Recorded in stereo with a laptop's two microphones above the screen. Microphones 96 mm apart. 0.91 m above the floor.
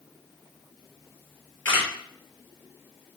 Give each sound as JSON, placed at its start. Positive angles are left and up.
{"t": 1.6, "sound": "a camera shutter", "side_deg": 25, "distance_m": 2.5}